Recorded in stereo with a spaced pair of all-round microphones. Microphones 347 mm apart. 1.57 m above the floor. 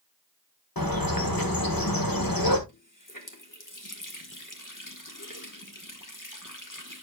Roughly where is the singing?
No singing in this recording.